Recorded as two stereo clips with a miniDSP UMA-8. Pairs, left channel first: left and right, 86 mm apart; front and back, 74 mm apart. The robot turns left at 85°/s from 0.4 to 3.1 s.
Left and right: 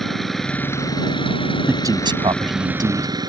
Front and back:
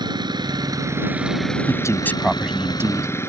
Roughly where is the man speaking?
Ahead right.